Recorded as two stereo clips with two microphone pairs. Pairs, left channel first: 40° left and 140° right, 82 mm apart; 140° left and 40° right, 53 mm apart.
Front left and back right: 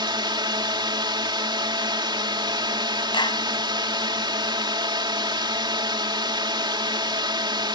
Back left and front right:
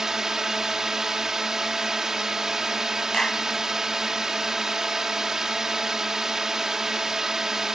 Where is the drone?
120° right.